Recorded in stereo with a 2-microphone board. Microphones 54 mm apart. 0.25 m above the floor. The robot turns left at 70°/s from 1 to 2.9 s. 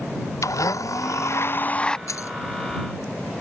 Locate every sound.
0.4 s a blender: 80° left; by 2.0 s 15° left
2.1 s keys jangling: 75° left (ahead or behind)